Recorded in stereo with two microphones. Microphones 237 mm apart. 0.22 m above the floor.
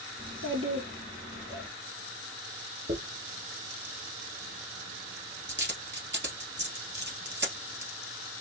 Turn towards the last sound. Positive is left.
turn(degrees=-50)  # may be behind; listen again after turning